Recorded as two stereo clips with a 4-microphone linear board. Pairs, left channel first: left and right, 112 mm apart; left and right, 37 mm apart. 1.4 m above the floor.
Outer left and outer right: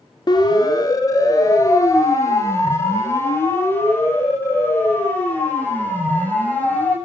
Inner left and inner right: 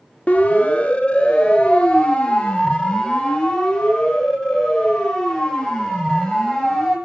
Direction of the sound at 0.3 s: 40° left (ahead or behind).